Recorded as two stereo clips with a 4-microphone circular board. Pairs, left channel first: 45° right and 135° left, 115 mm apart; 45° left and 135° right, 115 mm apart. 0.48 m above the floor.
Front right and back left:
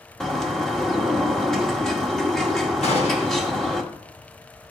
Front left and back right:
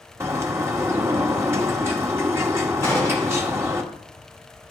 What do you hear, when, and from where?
0.2 s a bird: 125° right, 1.1 m
2.8 s a gunshot: 25° right, 3 m